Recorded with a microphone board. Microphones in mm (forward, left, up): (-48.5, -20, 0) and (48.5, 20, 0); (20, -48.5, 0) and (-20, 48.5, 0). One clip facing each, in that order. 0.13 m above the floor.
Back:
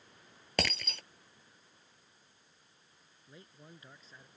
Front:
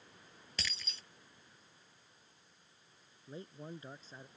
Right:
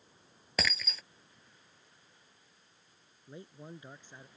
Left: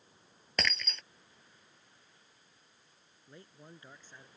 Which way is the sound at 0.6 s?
155° right.